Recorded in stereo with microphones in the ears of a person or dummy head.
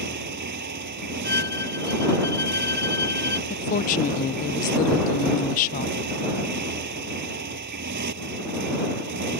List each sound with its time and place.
0.0 s a motorcycle: 55° right (ahead or behind)
1.2 s a violin: 15° left (ahead or behind)
3.5 s a woman speaking: 45° left (ahead or behind)